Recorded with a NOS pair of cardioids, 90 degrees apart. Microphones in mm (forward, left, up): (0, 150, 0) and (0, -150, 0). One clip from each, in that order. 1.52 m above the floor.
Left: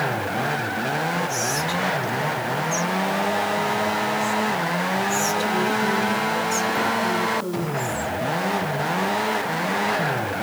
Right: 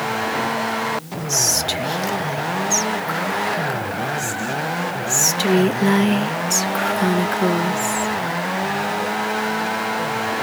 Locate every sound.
1.3 s whispering: 55° right, 0.6 m